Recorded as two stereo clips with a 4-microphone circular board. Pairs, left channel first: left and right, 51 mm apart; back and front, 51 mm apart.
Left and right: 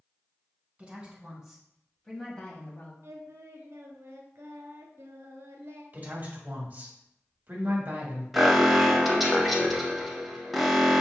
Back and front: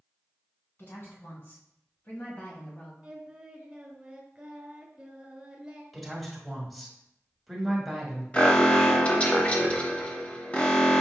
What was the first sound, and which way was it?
A woman speaking, 150° right.